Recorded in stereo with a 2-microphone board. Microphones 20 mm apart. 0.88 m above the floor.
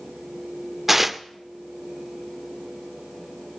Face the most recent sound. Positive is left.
turn(degrees=-10)  # may be behind; listen again after turning